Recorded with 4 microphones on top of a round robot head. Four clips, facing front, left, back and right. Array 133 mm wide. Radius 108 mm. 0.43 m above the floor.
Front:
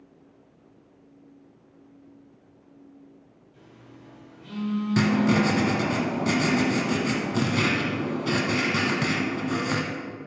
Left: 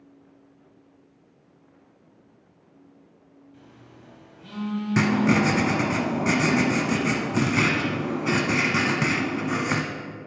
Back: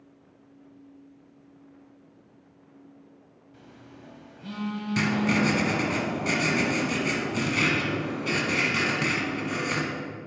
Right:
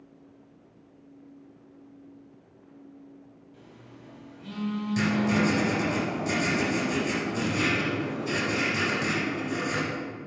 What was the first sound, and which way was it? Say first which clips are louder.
A phone buzzing: even, back 1 dB; 175° right.